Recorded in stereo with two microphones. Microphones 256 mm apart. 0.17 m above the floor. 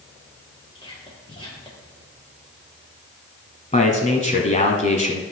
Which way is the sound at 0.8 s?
20° left (ahead or behind).